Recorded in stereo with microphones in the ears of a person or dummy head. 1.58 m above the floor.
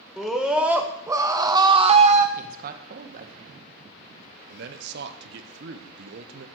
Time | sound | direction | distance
0.2 | a scream | centre (ahead or behind) | 1.6 m
2.4 | a man speaking | 55° right (ahead or behind) | 1.2 m
4.5 | a man speaking | 65° right (ahead or behind) | 0.9 m